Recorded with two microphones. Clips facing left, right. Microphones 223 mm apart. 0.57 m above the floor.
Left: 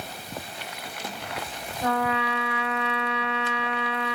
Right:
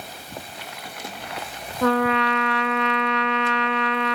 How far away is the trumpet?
About 0.6 m.